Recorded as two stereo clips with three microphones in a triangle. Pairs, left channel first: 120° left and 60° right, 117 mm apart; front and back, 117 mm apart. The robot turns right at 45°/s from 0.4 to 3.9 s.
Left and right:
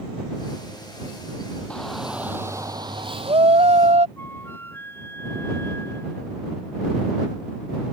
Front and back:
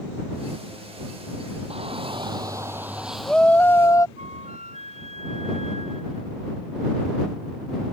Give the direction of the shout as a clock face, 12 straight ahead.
5 o'clock.